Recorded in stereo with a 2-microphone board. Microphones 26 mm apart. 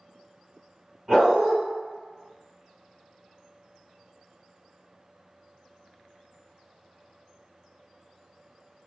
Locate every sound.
1.1 s a dog barking: 20° right (ahead or behind), 1.6 m